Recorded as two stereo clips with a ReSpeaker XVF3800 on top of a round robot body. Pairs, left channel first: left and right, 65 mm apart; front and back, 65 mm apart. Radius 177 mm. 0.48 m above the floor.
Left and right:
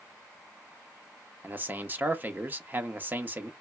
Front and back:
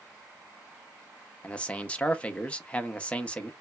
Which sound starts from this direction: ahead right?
A man speaking, at 1.4 s.